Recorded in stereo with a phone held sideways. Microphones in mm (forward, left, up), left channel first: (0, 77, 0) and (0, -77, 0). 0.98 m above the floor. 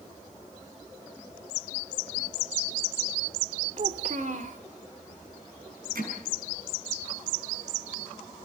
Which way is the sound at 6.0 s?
85° right.